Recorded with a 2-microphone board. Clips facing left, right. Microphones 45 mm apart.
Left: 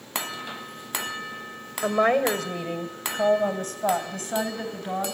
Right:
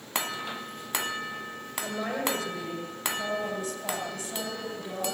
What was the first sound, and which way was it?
A woman speaking, 55° left (ahead or behind).